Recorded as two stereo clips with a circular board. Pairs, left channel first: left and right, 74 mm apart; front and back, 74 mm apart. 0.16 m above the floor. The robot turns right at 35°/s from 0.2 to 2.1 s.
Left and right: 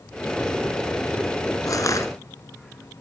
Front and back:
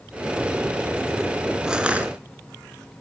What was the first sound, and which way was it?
Crushing, 100° left.